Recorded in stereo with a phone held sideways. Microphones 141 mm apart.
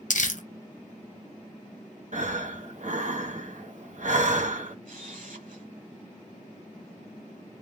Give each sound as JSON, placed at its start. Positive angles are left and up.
{"t": 0.1, "sound": "crumpling", "side_deg": 65, "distance_m": 0.6}
{"t": 2.1, "sound": "breathing", "side_deg": -60, "distance_m": 0.8}
{"t": 4.8, "sound": "a camera shutter", "side_deg": -70, "distance_m": 1.4}